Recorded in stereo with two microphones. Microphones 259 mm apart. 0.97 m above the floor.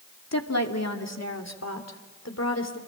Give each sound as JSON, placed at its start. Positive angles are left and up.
{"t": 0.3, "sound": "a woman speaking", "side_deg": 80, "distance_m": 2.0}